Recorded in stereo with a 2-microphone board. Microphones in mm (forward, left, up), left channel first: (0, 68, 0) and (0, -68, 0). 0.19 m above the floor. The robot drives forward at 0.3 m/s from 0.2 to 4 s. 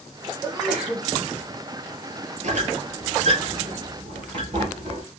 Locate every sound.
0.4 s a sneeze: 5° right (ahead or behind), 1.3 m
2.4 s a squeak: 65° right (ahead or behind), 0.8 m; by 5.0 s 40° right (ahead or behind), 1.1 m